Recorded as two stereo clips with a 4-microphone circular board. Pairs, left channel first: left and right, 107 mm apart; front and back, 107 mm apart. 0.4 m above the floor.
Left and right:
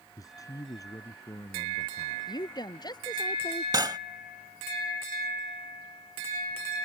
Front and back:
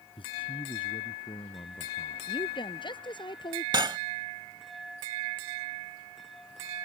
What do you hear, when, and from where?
0.2 s a man speaking: 35° left
2.3 s a woman speaking: 40° left
3.7 s cutlery clinking: 135° right